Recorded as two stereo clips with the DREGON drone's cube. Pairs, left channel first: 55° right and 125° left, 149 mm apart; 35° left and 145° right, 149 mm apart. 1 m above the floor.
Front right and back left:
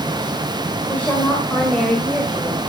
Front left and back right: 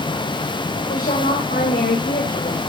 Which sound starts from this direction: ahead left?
A woman speaking, at 0.9 s.